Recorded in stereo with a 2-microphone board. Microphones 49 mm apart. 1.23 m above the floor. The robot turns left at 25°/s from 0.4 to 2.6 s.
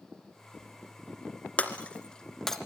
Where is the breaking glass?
25° left (ahead or behind), 2.5 m; by 2.6 s 5° left (ahead or behind), 2.5 m.